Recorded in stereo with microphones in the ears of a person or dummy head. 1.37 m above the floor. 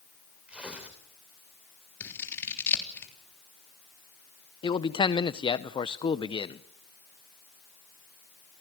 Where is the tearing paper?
5° right (ahead or behind), 3 m.